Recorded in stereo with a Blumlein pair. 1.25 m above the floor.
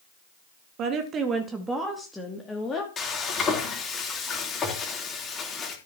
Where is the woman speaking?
35° right, 1.9 m; by 2.9 s 15° left, 2.5 m.